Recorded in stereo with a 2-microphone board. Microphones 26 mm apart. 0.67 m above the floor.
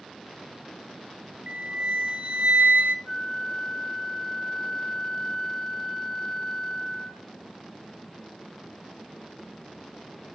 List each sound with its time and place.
1.5 s a flute: 60° right (ahead or behind), 0.6 m
3.0 s a flute: centre (ahead or behind), 4 m